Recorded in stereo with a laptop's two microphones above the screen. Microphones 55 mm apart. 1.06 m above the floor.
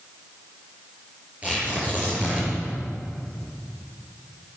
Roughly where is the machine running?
I don't hear a machine running.